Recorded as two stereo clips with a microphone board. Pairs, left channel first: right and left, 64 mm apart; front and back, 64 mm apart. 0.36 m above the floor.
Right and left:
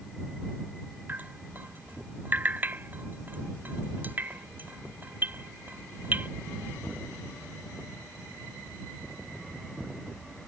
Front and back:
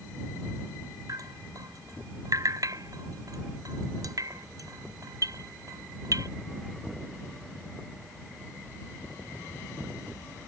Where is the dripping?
150° left.